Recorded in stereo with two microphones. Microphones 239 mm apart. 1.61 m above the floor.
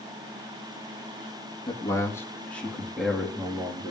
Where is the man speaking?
15° left (ahead or behind), 2.5 m; by 3.9 s 10° right (ahead or behind), 3.5 m.